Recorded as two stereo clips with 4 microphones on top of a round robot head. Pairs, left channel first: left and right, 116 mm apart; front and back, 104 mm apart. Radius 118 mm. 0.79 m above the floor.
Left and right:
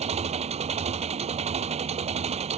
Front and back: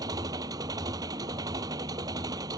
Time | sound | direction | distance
0.0 | an engine running | 120° right | ?